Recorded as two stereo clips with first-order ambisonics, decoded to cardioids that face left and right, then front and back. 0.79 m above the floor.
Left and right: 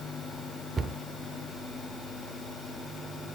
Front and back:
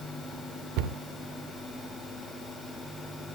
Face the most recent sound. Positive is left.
turn(degrees=-160)